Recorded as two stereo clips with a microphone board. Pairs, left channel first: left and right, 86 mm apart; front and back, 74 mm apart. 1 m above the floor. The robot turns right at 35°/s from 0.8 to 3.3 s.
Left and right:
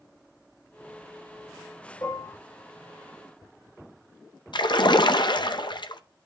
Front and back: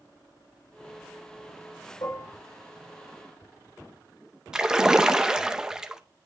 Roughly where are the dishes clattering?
Ahead left.